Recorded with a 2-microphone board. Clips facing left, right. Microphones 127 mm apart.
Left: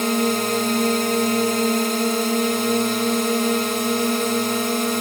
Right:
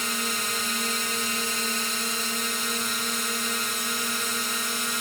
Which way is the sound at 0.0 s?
65° left (ahead or behind).